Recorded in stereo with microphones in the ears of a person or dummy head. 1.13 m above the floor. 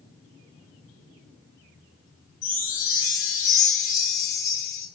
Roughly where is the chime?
Centre.